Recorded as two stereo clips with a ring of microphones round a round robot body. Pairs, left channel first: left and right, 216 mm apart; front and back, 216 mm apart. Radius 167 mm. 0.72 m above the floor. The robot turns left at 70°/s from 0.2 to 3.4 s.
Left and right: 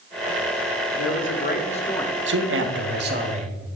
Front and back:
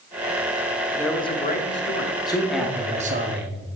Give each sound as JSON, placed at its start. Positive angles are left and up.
{"t": 0.9, "sound": "a man speaking", "azimuth_deg": 90, "distance_m": 2.0}
{"t": 2.3, "sound": "a man speaking", "azimuth_deg": -70, "distance_m": 1.6}